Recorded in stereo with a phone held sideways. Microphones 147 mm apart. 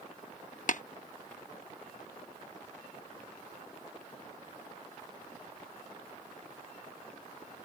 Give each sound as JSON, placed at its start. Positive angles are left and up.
{"t": 0.7, "sound": "tapping", "side_deg": 60}